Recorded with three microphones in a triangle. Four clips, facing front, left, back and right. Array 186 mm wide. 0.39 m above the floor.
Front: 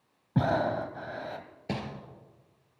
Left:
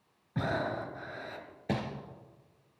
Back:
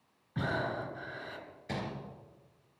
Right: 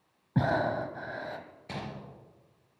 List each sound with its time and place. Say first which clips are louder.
0.3 s breathing: right 5 dB, front 7 dB; 35° right, 1.1 m
1.7 s crumpling: left 7 dB, front 4 dB; 50° left, 3.5 m